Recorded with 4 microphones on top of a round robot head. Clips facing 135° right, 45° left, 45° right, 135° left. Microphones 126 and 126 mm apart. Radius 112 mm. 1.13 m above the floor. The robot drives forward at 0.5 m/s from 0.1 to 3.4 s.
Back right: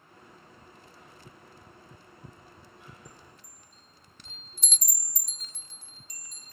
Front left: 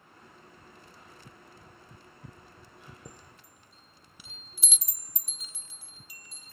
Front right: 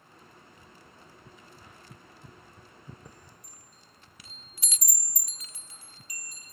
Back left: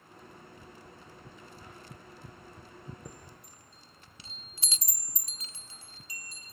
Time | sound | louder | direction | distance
3.0 | a chime | front left 1 dB, back left 3 dB | 75° left | ?